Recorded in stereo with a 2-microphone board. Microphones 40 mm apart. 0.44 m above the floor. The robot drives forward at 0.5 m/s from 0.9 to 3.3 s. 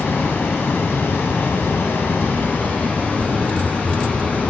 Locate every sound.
0.0 s running water: 70° left (ahead or behind), 1.0 m; by 4.5 s 45° left (ahead or behind), 1.3 m